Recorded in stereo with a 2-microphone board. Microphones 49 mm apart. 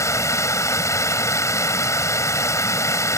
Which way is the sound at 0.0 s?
85° left.